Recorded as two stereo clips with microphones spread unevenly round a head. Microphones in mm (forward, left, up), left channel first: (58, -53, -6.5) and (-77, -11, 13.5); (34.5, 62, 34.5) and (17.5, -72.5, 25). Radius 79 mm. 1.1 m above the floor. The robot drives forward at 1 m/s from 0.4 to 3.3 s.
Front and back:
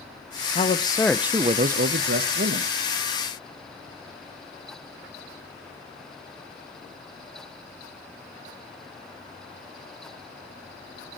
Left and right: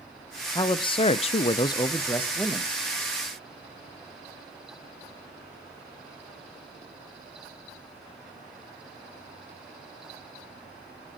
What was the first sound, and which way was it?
A man speaking, 20° left.